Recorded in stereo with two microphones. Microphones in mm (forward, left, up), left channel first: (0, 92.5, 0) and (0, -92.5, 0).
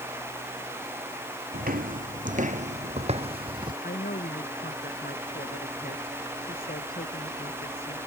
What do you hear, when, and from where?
1.5 s footsteps: 50° right (ahead or behind); by 3.7 s 25° right (ahead or behind)
3.8 s a woman speaking: 55° left (ahead or behind)